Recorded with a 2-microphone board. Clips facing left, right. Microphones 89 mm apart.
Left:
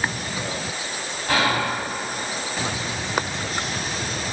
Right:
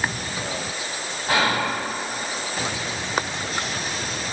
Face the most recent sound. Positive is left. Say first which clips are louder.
# even
turn(degrees=-15)  # may be behind; listen again after turning